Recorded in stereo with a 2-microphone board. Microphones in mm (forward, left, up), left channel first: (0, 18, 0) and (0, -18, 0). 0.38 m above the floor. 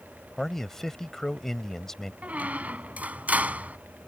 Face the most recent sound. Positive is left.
turn(degrees=-45)  # may be behind; listen again after turning